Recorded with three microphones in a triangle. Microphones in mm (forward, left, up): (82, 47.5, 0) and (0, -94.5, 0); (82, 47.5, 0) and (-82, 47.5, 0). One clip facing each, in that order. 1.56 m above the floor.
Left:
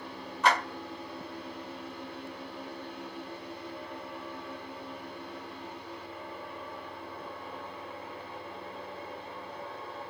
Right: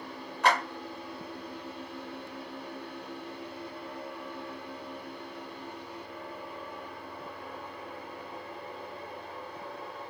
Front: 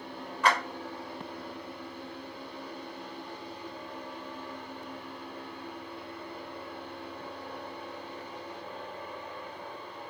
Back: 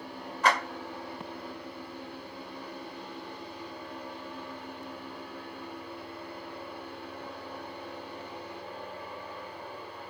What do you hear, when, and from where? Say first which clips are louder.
0.4 s a clap: even, even; 135° right, 1.4 m